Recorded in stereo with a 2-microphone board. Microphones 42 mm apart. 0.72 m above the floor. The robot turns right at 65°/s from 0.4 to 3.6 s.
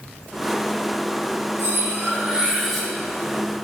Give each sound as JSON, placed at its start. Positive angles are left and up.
{"t": 1.6, "sound": "cutlery clinking", "azimuth_deg": -70, "distance_m": 3.0}